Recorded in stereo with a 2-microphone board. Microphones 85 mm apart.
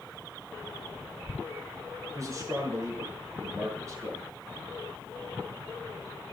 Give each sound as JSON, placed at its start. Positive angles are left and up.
{"t": 2.1, "sound": "a man speaking", "side_deg": -35, "distance_m": 9.0}